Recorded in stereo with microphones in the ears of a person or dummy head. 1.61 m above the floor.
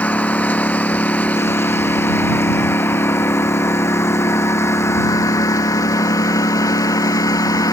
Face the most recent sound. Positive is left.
turn(degrees=20)  # may be behind; listen again after turning